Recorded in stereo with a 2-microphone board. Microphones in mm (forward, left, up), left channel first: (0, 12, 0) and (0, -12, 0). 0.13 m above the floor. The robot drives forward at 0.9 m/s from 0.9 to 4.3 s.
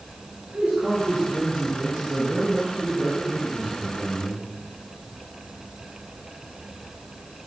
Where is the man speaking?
70° right (ahead or behind), 3.5 m; by 4.4 s 40° right (ahead or behind), 5 m.